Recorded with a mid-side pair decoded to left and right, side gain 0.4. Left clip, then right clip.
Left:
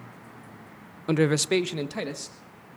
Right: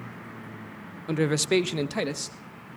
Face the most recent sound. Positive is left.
turn(degrees=-35)